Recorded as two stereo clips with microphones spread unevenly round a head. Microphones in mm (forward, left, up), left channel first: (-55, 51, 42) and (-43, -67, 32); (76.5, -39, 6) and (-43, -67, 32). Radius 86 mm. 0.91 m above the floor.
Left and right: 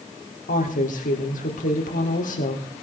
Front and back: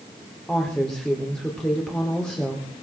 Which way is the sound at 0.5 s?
95° left.